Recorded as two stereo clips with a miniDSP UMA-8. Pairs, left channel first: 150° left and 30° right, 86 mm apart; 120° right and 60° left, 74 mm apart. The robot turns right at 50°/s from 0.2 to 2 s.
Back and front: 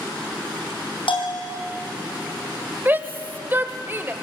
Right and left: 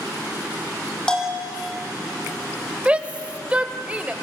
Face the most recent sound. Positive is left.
turn(degrees=5)